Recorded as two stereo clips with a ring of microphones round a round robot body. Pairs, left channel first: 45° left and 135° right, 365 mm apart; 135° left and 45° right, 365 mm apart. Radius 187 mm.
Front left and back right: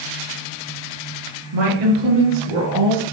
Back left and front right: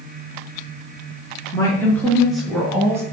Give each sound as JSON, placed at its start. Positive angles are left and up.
{"t": 1.5, "sound": "a woman speaking", "azimuth_deg": -145, "distance_m": 5.0}